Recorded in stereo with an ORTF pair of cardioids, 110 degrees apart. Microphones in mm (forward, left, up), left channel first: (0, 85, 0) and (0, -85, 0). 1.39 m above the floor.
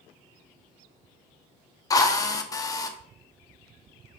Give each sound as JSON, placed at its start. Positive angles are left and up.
{"t": 1.9, "sound": "a drill", "azimuth_deg": 20, "distance_m": 1.0}